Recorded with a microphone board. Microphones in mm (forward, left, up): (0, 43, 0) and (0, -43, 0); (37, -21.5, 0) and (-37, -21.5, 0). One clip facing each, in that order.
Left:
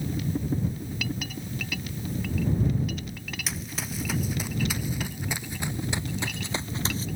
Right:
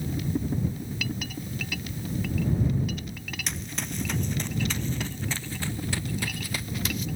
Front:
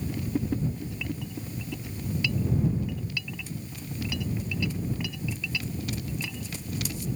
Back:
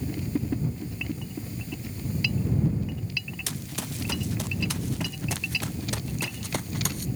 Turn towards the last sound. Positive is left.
turn(degrees=150)